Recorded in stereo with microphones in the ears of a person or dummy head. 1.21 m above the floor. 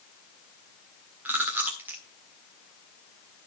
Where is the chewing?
5° right (ahead or behind), 1.5 m.